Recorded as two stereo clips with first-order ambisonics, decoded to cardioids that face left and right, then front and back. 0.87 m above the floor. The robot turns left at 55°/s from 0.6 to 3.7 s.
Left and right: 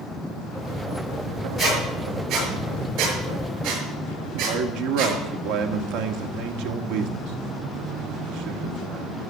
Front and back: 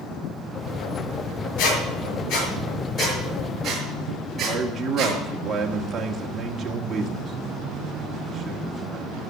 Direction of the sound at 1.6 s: 10° left.